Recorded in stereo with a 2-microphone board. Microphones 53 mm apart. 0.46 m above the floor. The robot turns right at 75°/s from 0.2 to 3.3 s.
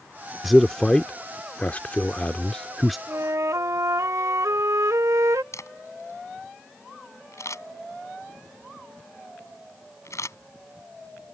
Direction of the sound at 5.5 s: 70° left (ahead or behind).